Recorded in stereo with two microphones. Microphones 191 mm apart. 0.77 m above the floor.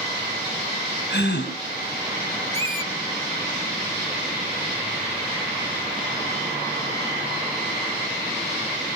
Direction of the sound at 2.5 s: 15° left (ahead or behind).